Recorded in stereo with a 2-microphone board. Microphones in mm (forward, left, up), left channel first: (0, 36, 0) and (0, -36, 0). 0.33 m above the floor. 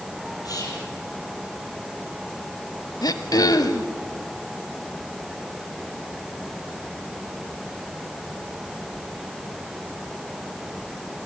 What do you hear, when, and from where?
0.5 s whispering: 55° left (ahead or behind), 8 m
3.0 s throat clearing: 60° left (ahead or behind), 1.1 m